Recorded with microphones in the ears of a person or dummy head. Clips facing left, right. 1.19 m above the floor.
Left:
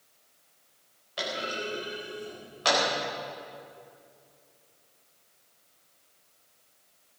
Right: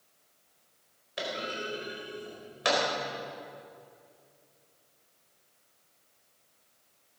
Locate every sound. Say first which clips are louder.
1.2 s a clunk: left 1 dB; 25° right (ahead or behind), 4.5 m